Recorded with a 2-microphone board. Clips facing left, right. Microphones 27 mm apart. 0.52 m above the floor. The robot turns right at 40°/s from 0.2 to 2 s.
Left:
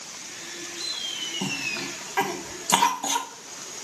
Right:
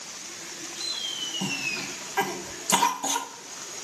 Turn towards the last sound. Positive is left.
turn(degrees=25)  # may be behind; listen again after turning